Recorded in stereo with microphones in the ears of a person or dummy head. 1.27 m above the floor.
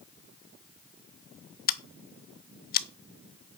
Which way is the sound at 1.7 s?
45° left (ahead or behind).